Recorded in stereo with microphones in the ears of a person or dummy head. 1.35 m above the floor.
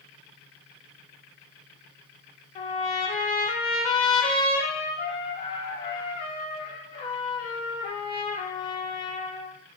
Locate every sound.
2.5 s a trumpet: 35° left (ahead or behind), 0.6 m